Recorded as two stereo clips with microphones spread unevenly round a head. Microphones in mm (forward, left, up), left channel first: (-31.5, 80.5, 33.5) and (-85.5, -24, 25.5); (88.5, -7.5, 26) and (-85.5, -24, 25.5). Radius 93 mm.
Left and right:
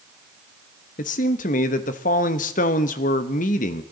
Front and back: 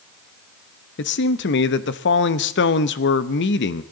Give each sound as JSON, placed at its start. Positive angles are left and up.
{"t": 1.0, "sound": "a man speaking", "azimuth_deg": 35, "distance_m": 0.8}